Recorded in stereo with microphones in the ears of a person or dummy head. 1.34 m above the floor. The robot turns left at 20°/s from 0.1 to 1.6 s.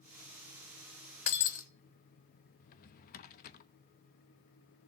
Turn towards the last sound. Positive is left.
turn(degrees=50)  # may be behind; listen again after turning